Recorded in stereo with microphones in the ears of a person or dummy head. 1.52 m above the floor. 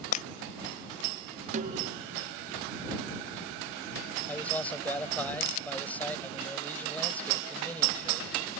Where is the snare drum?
40° right (ahead or behind).